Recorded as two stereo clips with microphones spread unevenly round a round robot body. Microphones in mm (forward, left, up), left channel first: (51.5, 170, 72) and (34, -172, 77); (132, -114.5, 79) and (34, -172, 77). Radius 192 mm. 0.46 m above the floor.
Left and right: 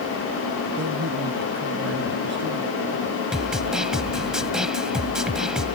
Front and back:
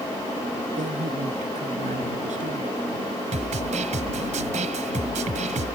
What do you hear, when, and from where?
0.8 s a man speaking: 155° right
3.3 s a snare drum: straight behind